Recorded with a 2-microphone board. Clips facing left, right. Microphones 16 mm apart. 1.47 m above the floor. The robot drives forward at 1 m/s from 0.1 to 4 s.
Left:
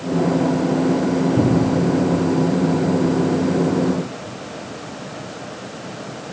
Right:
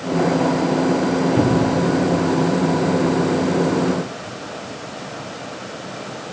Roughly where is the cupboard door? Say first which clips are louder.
Even; right.